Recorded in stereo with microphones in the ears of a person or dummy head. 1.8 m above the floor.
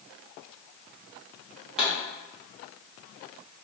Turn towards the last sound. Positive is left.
turn(degrees=0)  # may be behind; listen again after turning